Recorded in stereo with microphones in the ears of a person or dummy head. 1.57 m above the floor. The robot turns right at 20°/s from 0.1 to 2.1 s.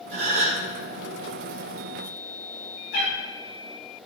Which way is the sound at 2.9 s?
55° left (ahead or behind).